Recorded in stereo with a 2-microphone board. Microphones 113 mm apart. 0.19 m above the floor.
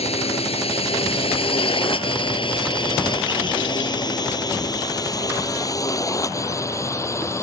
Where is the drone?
65° left (ahead or behind); by 7.4 s 25° left (ahead or behind).